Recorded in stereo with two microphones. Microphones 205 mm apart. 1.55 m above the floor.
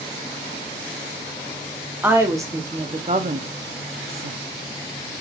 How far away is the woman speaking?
About 1.1 m.